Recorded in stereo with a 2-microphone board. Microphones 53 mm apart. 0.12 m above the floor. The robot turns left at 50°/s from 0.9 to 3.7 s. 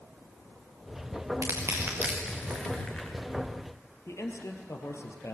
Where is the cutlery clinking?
I don't hear cutlery clinking.